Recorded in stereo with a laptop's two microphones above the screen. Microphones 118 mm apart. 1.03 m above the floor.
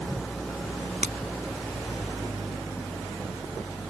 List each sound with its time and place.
0.0 s an engine running: 5° left (ahead or behind)
1.0 s breaking glass: 85° right